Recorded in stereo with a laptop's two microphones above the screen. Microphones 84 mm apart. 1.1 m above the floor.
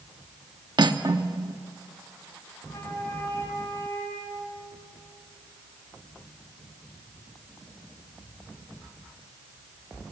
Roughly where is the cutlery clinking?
Right.